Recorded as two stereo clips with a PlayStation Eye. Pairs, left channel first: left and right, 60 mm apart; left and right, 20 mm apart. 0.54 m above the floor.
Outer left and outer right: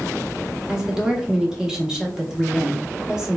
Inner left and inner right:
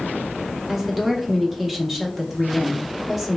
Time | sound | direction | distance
0.7 | a woman speaking | 10° right (ahead or behind) | 0.7 m